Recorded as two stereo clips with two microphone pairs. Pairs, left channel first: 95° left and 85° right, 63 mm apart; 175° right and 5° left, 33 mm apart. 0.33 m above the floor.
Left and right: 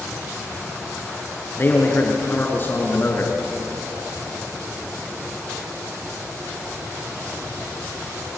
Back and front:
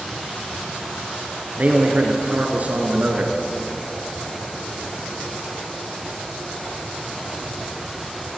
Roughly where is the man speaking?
Ahead left.